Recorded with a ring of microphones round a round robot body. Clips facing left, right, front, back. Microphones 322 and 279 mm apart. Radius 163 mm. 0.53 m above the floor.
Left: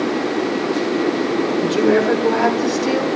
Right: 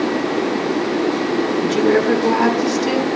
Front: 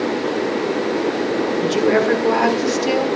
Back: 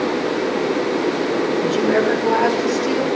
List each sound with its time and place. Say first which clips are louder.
1.6 s a woman speaking: even, front 2 dB; 15° right, 1.6 m